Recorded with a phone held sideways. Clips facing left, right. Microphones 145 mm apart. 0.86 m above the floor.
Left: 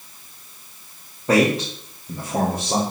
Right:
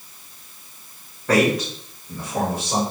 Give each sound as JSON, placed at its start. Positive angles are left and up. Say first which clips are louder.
{"t": 1.3, "sound": "a man speaking", "louder": "left 1 dB", "side_deg": 20, "distance_m": 1.8}